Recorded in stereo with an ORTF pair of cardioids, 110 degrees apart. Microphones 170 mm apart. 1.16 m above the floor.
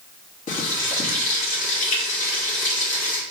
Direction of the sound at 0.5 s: 45° left.